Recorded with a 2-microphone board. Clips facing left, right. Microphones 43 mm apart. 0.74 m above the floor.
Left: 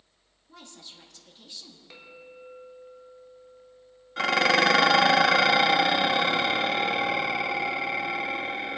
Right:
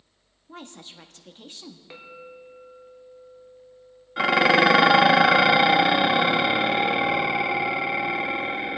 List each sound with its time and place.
0.5 s a woman speaking: 40° right (ahead or behind), 1.0 m
1.9 s a clink: 20° right (ahead or behind), 1.5 m
4.2 s dishes clattering: 10° right (ahead or behind), 0.5 m